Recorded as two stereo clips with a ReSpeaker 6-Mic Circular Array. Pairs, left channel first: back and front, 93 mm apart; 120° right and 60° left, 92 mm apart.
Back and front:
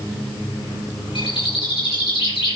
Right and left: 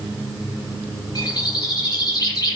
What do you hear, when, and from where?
1.1 s a bird: 160° right, 5 m